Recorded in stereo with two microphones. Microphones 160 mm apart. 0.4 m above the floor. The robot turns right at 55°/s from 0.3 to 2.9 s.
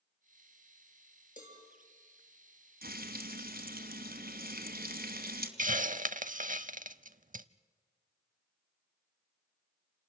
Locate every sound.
1.4 s a cowbell: 50° left (ahead or behind), 6 m; by 1.6 s 65° left (ahead or behind), 6 m
2.8 s frying: 70° right (ahead or behind), 2.5 m; by 5.5 s 65° right (ahead or behind), 2.5 m
5.6 s a hiss: 55° right (ahead or behind), 0.6 m